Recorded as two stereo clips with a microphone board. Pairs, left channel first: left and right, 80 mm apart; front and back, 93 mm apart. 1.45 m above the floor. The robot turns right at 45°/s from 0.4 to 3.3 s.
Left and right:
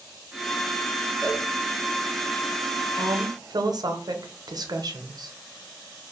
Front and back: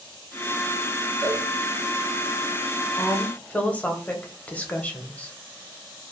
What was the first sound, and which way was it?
A cowbell, 45° right.